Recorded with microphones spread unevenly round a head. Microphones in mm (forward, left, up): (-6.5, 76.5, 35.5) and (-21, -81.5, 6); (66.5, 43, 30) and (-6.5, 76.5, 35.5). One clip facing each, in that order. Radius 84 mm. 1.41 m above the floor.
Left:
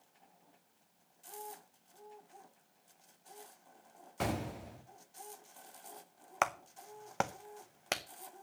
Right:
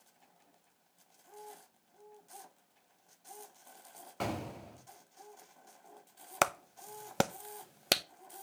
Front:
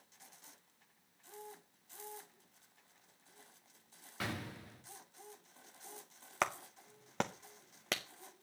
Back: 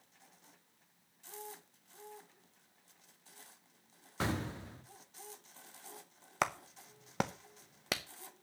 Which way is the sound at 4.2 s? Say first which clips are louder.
Left 1 dB, back 6 dB; 145° left.